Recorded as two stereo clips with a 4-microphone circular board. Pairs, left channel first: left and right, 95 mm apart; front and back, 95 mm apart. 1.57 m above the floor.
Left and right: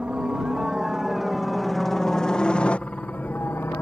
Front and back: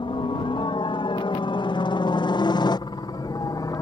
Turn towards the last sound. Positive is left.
turn(degrees=35)